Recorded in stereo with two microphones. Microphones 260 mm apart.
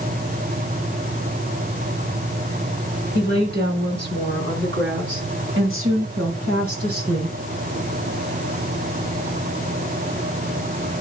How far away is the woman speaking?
About 4.5 m.